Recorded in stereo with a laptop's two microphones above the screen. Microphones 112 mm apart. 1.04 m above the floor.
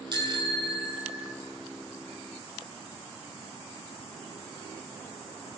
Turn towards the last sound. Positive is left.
turn(degrees=-40)  # may be behind; listen again after turning